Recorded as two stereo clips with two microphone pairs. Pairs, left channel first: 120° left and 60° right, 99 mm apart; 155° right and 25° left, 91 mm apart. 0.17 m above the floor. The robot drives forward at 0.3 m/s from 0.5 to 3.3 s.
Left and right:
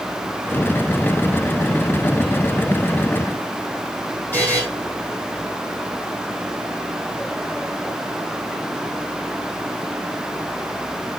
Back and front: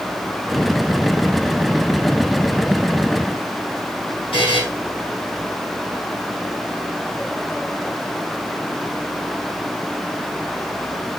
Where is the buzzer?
165° right, 6 m.